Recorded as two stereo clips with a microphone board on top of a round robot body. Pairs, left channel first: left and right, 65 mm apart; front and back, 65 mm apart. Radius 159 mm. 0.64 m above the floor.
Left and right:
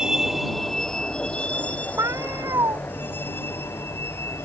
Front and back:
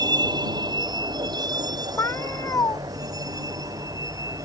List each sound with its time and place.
0.0 s a vehicle: 170° right; by 4.5 s 145° left
2.0 s a cat meowing: 50° right